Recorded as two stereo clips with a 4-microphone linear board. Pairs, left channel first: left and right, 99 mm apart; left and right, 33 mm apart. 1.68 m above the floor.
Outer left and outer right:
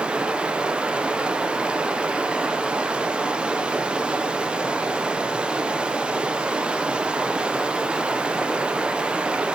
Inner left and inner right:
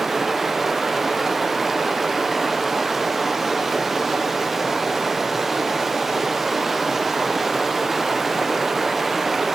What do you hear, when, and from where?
0.0 s running water: 10° right (ahead or behind), 0.7 m